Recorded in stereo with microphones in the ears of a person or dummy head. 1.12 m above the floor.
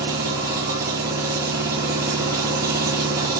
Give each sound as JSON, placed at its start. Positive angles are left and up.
{"t": 0.0, "sound": "an engine running", "side_deg": -10, "distance_m": 1.7}